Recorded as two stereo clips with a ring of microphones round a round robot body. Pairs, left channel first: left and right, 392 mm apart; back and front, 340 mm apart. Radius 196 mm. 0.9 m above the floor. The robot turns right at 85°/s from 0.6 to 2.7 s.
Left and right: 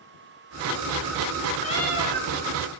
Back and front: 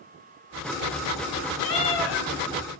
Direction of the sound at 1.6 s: 155° left.